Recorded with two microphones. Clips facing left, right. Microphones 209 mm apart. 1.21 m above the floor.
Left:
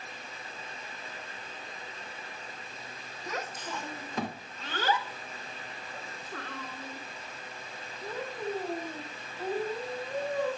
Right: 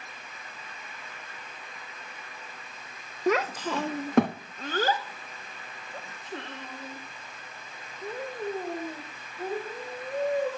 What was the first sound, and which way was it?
A child speaking, 65° right (ahead or behind).